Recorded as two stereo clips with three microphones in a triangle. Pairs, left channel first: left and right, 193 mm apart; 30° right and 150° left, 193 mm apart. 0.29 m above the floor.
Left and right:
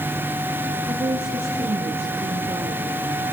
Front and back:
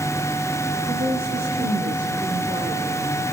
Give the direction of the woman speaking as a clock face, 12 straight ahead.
6 o'clock.